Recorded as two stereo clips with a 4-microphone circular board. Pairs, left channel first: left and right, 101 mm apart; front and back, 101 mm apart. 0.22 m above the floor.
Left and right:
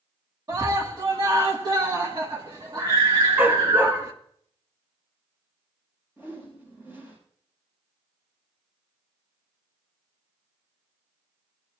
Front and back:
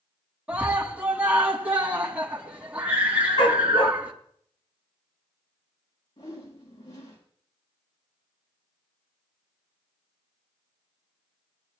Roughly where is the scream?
Right.